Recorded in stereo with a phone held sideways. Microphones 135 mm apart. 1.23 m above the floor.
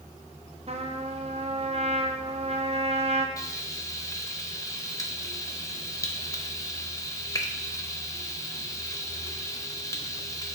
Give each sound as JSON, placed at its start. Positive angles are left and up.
{"t": 0.7, "sound": "a trumpet", "side_deg": -50, "distance_m": 0.6}
{"t": 3.4, "sound": "frying", "side_deg": 25, "distance_m": 0.7}